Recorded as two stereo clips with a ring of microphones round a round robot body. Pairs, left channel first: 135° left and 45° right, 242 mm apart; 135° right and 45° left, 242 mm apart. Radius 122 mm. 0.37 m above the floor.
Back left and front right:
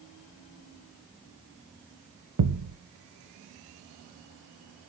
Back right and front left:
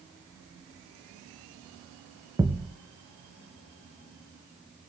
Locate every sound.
2.4 s a thud: 35° right, 0.9 m